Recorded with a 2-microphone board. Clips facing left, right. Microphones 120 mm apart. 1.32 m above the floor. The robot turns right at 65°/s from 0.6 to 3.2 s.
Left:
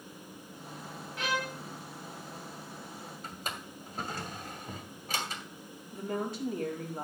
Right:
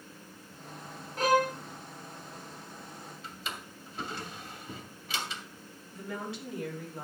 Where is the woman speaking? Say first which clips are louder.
Left 4 dB; 45° left (ahead or behind), 3.5 m.